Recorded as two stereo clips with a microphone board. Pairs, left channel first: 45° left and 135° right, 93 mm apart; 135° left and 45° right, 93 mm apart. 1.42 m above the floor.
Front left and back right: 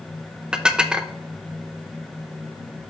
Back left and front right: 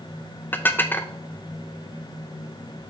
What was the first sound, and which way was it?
Dishes clattering, 160° left.